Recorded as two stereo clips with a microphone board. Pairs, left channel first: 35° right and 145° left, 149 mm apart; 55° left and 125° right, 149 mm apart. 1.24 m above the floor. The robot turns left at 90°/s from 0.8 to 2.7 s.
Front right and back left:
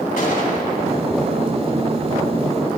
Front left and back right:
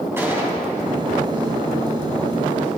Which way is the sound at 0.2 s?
50° right.